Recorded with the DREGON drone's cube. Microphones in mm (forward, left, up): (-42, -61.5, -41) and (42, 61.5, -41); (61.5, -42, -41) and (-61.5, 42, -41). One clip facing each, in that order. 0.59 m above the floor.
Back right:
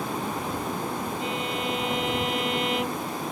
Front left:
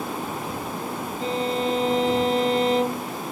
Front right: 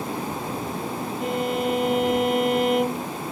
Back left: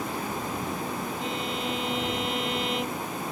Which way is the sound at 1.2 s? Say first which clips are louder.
Front left 5 dB, front right 7 dB; 5° left.